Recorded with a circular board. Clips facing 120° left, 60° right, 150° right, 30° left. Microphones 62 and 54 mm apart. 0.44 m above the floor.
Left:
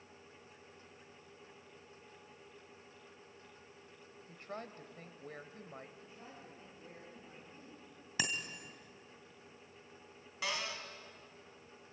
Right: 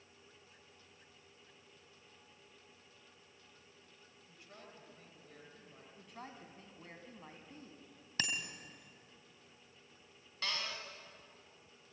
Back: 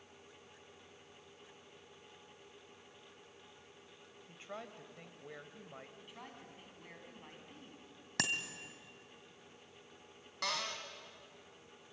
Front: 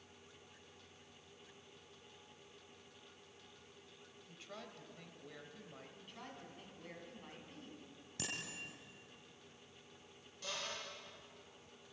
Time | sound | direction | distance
4.3 | a woman speaking | 150° left | 2 m
6.0 | a woman speaking | 70° right | 4 m
8.2 | a bicycle bell | 160° right | 2.5 m
10.4 | a cupboard door | 160° right | 2.5 m